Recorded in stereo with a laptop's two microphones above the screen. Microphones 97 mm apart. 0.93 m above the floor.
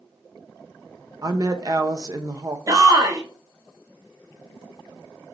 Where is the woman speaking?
40° right (ahead or behind), 0.6 m.